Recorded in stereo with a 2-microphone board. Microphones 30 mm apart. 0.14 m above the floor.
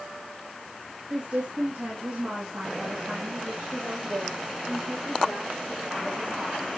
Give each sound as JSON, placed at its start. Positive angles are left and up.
{"t": 1.1, "sound": "a woman speaking", "side_deg": -50, "distance_m": 2.5}